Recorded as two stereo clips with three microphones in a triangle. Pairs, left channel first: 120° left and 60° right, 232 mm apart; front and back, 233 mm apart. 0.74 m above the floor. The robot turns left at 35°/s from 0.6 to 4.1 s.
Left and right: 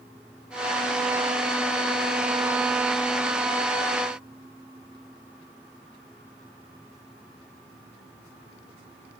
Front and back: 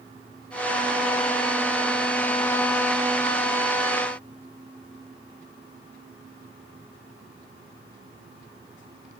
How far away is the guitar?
No guitar in this recording.